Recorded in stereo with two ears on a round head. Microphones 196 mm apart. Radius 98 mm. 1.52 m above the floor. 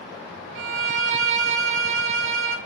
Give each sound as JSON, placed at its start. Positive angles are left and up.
{"t": 0.6, "sound": "a violin", "side_deg": -60, "distance_m": 0.6}